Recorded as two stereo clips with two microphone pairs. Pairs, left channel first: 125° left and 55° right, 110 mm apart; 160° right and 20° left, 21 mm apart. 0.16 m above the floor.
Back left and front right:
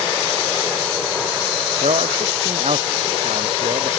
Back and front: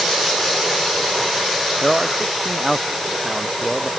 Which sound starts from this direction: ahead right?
A man speaking, at 1.8 s.